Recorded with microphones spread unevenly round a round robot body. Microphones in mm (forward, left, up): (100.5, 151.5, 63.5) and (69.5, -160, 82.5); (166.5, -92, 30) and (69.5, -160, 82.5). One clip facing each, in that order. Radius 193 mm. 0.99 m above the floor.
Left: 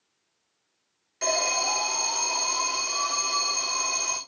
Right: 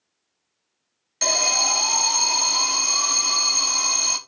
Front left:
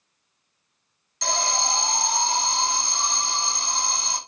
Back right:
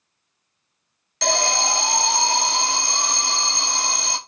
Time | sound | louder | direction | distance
1.2 | an alarm | even, back right 4 dB | 145° right | 1.2 m